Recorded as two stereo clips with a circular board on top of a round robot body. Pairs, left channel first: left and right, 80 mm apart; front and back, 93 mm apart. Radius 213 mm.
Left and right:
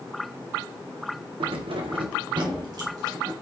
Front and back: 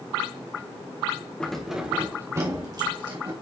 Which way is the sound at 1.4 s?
80° right.